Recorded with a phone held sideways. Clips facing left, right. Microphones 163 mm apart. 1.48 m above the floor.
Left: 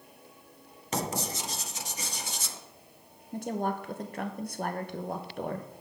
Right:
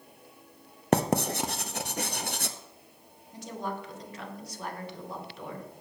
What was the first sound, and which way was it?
Writing, 60° right (ahead or behind).